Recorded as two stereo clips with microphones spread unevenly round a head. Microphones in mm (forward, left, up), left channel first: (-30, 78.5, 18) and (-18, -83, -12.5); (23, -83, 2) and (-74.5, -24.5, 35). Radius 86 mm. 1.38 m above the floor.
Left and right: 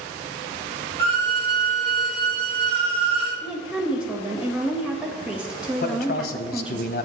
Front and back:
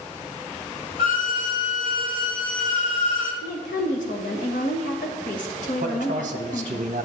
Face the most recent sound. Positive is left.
turn(degrees=120)